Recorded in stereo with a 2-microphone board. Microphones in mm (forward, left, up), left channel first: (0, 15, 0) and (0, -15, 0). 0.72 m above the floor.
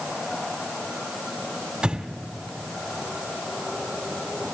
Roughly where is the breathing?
Right.